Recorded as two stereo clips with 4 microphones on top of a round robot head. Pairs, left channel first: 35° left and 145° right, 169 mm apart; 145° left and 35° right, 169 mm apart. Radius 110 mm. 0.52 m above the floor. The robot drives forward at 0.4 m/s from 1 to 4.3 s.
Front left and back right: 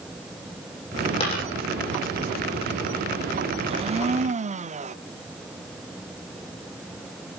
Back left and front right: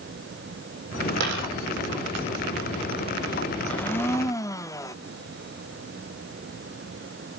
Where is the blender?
140° right, 1.0 m; by 5.0 s 150° right, 1.1 m.